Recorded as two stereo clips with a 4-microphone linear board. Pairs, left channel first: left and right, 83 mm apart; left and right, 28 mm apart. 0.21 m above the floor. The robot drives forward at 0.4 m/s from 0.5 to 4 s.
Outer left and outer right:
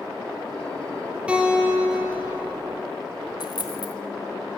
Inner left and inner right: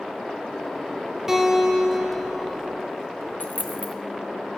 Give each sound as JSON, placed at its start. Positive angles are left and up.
{"t": 1.3, "sound": "a guitar", "side_deg": -15, "distance_m": 5.0}
{"t": 3.4, "sound": "a dropped coin", "side_deg": 55, "distance_m": 1.1}